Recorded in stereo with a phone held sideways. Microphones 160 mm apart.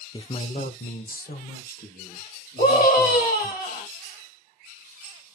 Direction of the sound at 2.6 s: 70° left (ahead or behind).